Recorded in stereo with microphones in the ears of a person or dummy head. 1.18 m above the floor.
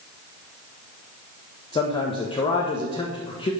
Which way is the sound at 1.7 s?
20° left (ahead or behind).